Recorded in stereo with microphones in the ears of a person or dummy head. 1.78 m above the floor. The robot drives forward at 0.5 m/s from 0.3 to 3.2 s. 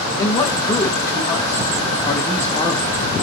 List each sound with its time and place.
0.2 s a man speaking: 15° left (ahead or behind), 2 m; by 3.1 s 10° left (ahead or behind), 3.5 m